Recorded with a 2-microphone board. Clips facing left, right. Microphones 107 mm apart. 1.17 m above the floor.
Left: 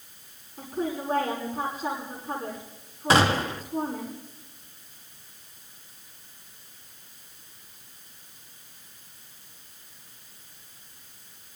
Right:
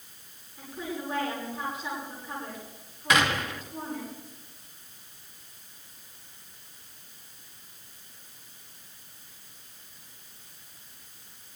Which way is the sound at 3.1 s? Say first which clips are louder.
Left 4 dB; 35° left (ahead or behind).